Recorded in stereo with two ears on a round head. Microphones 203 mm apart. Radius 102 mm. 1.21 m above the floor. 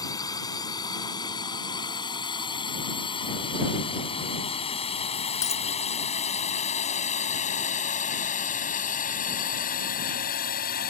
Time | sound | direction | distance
0.0 | a drone | 15° left (ahead or behind) | ?
5.4 | a dropped coin | 15° left (ahead or behind) | ?